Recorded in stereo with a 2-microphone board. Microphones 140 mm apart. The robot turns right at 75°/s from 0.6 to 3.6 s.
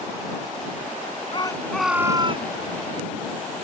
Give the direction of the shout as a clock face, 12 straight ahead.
7 o'clock.